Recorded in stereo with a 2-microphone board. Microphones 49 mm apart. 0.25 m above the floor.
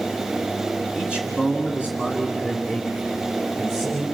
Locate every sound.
0.9 s a man speaking: 20° right (ahead or behind), 1.7 m; by 4.0 s 10° right (ahead or behind), 5.5 m